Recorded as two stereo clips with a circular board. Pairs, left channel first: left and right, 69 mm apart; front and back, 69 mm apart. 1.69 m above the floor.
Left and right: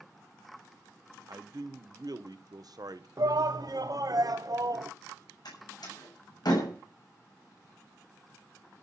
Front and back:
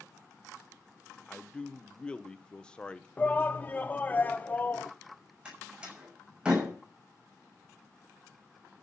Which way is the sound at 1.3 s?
75° right.